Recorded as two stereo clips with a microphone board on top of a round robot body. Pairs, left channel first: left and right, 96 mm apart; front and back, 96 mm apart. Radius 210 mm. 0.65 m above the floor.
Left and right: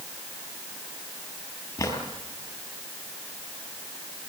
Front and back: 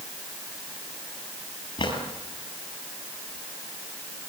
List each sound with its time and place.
1.8 s a drawer: 40° left, 8 m